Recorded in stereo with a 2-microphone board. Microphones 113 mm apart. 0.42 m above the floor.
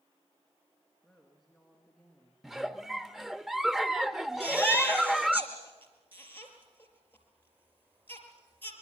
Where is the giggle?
5° right (ahead or behind), 0.6 m.